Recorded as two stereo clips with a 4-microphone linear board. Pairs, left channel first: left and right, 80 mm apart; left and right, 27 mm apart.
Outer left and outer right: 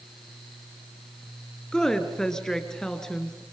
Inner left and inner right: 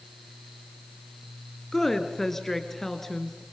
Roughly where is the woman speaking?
Centre.